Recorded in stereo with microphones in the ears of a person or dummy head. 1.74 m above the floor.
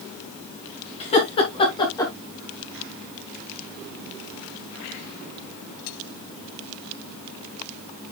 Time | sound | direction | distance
1.0 | laughter | 30° left (ahead or behind) | 4 m